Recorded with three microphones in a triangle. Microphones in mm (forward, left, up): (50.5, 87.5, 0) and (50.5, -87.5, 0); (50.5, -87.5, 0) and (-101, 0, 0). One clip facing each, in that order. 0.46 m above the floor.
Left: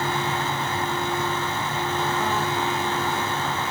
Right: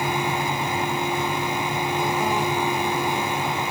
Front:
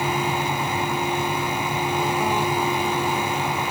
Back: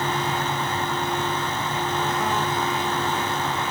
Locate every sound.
Only background noise.